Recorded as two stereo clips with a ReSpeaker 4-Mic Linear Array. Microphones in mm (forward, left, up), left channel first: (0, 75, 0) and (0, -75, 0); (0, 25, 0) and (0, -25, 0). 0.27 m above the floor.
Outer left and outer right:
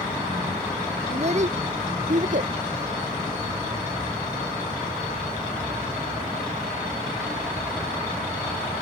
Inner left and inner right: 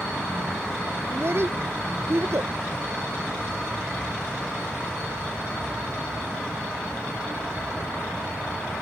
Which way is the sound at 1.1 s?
45° right (ahead or behind).